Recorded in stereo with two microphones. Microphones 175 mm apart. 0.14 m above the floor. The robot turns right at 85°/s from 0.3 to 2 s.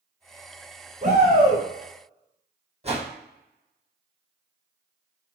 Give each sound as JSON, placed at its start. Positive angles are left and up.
{"t": 1.0, "sound": "a shout", "azimuth_deg": -95, "distance_m": 1.2}
{"t": 2.8, "sound": "a whoosh", "side_deg": -35, "distance_m": 1.2}